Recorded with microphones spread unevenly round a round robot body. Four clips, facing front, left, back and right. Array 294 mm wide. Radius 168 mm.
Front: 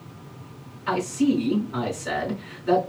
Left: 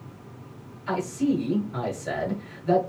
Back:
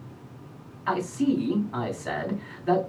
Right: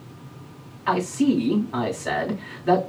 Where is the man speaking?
100° right, 2.5 m.